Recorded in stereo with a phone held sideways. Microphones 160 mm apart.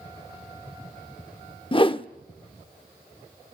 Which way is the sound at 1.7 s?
35° left (ahead or behind).